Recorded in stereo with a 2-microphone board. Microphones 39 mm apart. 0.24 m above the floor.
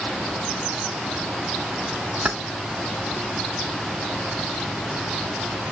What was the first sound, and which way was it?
Keys jangling, 30° right (ahead or behind).